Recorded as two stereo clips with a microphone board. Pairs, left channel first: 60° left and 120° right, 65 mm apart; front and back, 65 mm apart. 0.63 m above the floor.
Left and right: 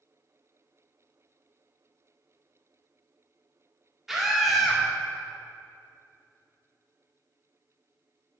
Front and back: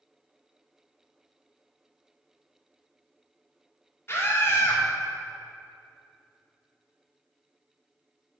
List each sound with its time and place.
4.1 s a scream: 35° right, 1.7 m